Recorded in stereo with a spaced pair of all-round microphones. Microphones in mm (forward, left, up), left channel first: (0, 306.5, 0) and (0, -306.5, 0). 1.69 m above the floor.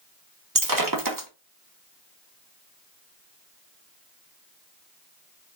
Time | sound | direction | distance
0.6 | breaking glass | 35° right (ahead or behind) | 1.0 m